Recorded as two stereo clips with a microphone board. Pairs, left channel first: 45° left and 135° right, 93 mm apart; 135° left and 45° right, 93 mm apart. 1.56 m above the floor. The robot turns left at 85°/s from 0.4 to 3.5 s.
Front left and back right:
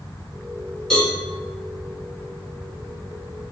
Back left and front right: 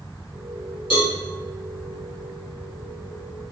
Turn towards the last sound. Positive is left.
turn(degrees=-90)